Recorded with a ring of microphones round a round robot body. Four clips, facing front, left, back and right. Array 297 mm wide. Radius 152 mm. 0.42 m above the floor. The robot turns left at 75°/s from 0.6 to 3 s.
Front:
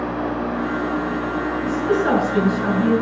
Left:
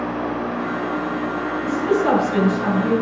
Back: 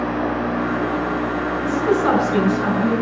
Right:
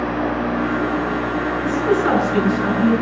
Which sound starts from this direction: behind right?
A woman speaking, at 1.6 s.